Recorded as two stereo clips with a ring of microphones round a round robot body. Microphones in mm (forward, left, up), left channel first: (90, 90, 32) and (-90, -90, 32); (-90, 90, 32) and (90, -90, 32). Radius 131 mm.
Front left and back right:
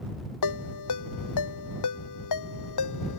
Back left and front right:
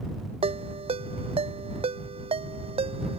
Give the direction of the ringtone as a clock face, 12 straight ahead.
11 o'clock.